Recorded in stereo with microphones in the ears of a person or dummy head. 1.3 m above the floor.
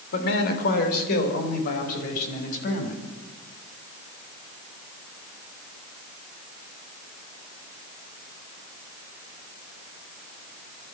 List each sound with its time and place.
0.1 s a man speaking: 65° left (ahead or behind), 4 m; by 3.0 s 50° left (ahead or behind), 7.5 m